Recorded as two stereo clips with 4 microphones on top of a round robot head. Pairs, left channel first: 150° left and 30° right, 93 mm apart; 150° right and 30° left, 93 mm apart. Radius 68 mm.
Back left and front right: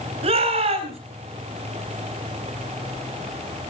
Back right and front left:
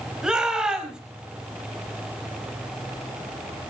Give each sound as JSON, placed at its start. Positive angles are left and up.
{"t": 0.2, "sound": "a shout", "azimuth_deg": -50, "distance_m": 4.5}